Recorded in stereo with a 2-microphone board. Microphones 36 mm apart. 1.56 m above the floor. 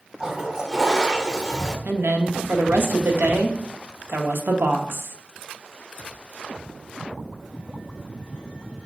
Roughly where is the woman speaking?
Right.